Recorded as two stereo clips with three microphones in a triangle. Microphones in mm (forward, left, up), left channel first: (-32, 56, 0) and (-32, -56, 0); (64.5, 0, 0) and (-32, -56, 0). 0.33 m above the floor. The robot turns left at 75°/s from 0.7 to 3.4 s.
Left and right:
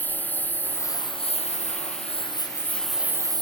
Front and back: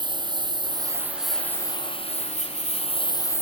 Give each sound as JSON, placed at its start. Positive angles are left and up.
{"t": 0.0, "sound": "a lawn mower", "azimuth_deg": 165}